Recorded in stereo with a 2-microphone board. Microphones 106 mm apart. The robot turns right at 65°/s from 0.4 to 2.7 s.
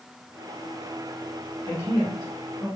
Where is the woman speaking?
40° right (ahead or behind), 1.5 m; by 2.7 s 30° right (ahead or behind), 1.5 m.